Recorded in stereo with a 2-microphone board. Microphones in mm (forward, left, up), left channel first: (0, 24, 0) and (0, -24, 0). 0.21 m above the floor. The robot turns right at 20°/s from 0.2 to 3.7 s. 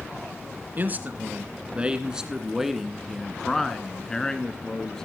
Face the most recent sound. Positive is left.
turn(degrees=15)